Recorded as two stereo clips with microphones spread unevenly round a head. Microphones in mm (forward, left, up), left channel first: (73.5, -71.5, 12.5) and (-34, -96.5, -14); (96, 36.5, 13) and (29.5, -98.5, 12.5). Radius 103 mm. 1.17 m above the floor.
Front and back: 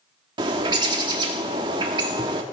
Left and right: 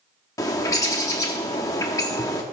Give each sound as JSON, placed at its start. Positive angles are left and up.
{"t": 0.4, "sound": "a bird", "azimuth_deg": 130, "distance_m": 0.8}